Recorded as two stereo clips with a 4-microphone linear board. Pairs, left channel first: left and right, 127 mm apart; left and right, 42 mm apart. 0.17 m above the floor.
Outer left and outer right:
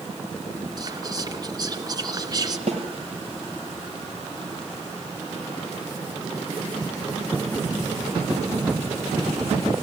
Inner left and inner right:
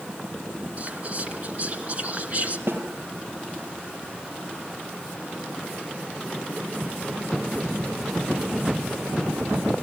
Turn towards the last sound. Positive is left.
turn(degrees=-60)  # may be behind; listen again after turning